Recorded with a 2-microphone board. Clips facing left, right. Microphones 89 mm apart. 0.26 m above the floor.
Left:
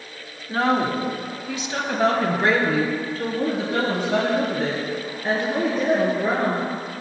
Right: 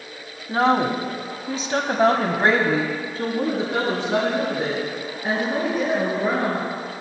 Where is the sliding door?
No sliding door in this recording.